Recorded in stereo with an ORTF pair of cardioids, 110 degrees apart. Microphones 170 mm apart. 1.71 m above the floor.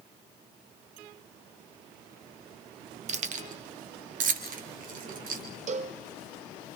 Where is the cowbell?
45° right, 1.3 m.